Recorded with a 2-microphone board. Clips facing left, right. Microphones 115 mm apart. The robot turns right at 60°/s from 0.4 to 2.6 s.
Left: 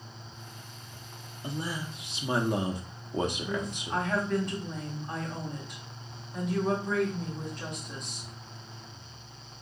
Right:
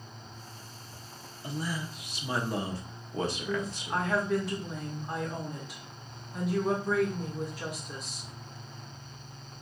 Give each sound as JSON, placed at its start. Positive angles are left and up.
{"t": 1.4, "sound": "a man speaking", "side_deg": 20, "distance_m": 0.5}
{"t": 3.5, "sound": "a woman speaking", "side_deg": -5, "distance_m": 1.4}